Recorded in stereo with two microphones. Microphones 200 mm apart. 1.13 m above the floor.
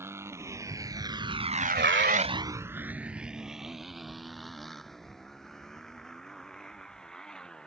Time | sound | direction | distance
0.0 | a motorcycle | 10° right (ahead or behind) | ?